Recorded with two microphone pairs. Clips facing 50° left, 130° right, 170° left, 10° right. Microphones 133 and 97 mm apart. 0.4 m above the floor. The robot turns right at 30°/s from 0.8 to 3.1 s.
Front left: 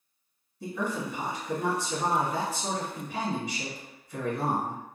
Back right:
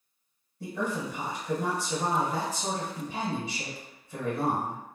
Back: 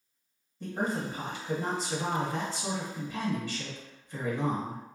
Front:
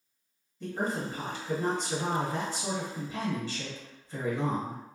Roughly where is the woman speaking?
Behind right.